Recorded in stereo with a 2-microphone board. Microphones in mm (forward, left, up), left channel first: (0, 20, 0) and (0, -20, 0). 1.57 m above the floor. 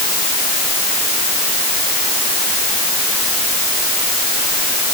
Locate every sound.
Only background noise.